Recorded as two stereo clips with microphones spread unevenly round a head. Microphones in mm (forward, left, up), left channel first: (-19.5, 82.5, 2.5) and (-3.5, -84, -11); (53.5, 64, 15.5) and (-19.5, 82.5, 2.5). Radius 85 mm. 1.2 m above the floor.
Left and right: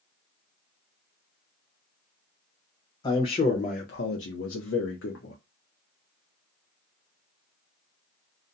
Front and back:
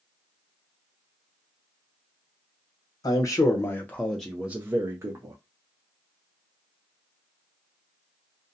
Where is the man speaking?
25° left, 0.8 m; by 5.3 s 125° left, 0.8 m.